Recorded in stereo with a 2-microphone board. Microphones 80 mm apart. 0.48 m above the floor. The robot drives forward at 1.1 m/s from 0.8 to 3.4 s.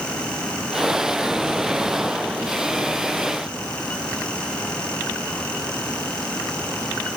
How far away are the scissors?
I don't hear scissors.